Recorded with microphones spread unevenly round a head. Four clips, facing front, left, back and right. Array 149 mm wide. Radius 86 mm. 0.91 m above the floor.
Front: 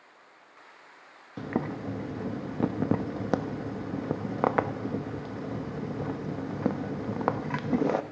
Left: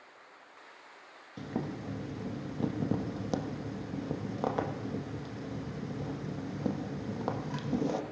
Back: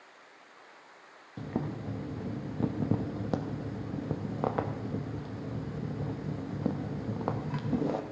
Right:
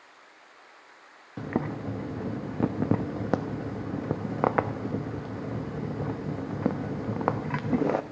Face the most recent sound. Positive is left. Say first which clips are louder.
# right 6 dB, front 4 dB
turn(degrees=-40)